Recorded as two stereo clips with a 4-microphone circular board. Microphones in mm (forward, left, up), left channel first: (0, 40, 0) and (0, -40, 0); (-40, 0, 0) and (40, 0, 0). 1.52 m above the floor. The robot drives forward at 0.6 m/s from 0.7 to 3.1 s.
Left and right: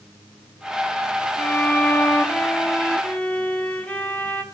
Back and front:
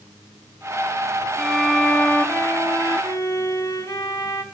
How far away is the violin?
About 0.9 m.